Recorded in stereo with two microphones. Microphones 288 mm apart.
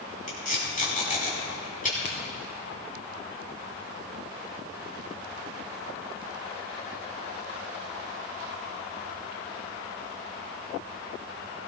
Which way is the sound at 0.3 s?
30° left (ahead or behind).